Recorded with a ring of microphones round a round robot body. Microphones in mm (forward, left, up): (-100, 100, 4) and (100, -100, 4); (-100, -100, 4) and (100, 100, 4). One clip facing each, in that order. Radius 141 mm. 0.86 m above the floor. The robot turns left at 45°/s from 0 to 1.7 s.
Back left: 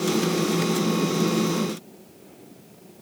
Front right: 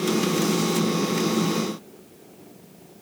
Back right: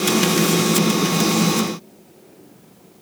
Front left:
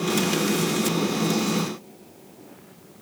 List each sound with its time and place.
Only background noise.